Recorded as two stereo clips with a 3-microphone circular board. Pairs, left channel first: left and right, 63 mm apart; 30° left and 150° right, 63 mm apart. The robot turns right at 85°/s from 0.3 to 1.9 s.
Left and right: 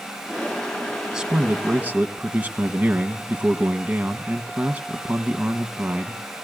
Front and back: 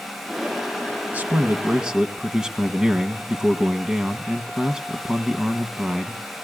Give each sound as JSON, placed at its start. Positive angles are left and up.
{"t": 1.1, "sound": "a man speaking", "azimuth_deg": -155, "distance_m": 1.1}